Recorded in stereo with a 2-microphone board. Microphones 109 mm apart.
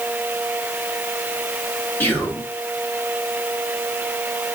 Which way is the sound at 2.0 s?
15° left (ahead or behind).